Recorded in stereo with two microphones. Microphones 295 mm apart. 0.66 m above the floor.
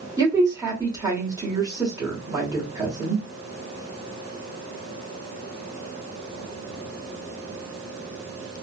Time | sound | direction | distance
0.2 | a woman speaking | 10° right (ahead or behind) | 1.9 m